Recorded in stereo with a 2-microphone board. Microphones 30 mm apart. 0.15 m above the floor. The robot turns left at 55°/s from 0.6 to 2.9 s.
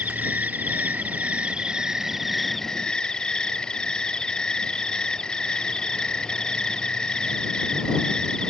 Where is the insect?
80° right; by 8.5 s 150° left.